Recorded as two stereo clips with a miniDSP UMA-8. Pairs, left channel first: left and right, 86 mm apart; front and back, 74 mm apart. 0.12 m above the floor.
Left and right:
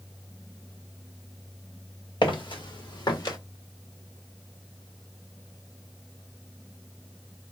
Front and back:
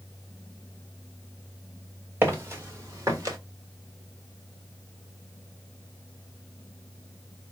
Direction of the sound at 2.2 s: 120° left.